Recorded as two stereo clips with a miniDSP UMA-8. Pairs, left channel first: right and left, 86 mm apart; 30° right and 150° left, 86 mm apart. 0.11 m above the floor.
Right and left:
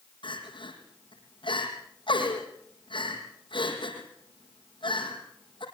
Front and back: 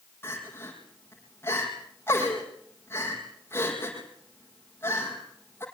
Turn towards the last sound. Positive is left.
turn(degrees=-90)